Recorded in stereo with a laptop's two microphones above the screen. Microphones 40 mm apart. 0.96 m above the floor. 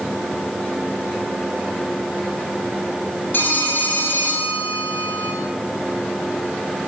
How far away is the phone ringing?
About 7.5 m.